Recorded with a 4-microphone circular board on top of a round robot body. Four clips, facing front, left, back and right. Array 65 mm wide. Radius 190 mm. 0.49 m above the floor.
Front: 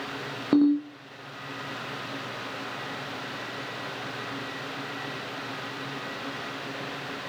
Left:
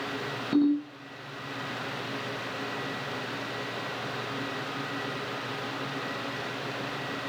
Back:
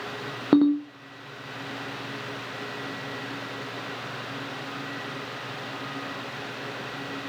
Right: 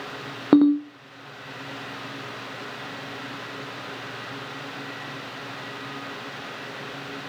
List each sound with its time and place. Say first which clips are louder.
0.5 s a ringtone: right 8 dB, back 1 dB; 110° right, 0.6 m